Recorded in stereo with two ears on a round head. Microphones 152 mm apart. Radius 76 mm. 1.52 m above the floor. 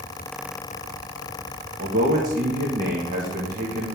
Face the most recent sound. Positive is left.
turn(degrees=-50)  # may be behind; listen again after turning